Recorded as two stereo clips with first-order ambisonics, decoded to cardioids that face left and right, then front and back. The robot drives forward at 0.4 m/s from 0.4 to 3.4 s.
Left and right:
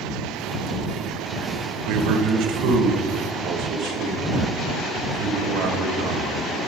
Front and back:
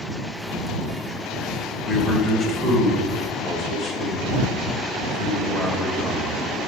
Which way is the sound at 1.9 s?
90° right.